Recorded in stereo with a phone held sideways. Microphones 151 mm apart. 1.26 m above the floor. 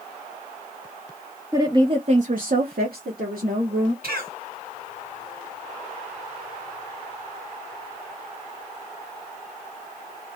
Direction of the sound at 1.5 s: 20° right (ahead or behind).